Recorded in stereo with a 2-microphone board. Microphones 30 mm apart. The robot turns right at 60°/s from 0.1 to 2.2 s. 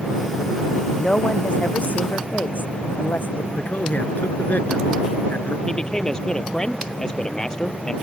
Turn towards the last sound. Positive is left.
turn(degrees=25)  # may be behind; listen again after turning